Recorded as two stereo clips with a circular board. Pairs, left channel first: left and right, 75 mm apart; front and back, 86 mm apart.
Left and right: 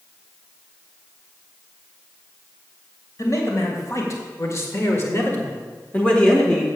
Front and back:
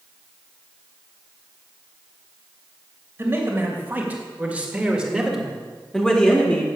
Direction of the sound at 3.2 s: 120° left.